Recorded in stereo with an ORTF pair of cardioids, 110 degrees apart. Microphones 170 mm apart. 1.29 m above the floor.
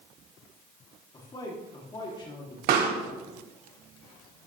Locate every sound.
1.1 s a man speaking: 25° left, 2.5 m
2.7 s a pop: 65° right, 3 m